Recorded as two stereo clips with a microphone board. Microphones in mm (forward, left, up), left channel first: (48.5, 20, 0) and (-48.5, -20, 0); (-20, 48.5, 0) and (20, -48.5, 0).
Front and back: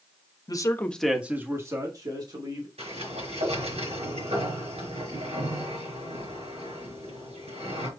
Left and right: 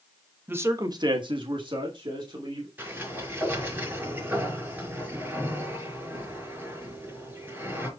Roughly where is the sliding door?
Behind right.